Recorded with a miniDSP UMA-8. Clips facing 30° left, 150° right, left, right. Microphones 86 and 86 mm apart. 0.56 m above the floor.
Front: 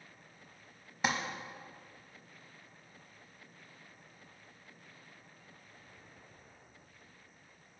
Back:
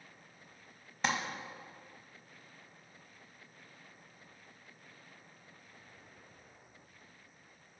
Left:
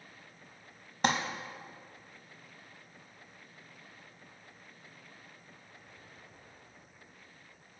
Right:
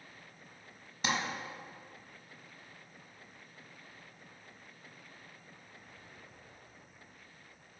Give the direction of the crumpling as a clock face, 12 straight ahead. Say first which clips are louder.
Even, left 5 dB; 8 o'clock.